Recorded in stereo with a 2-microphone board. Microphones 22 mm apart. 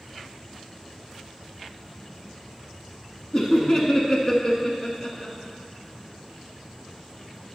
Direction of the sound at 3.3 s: 10° left (ahead or behind).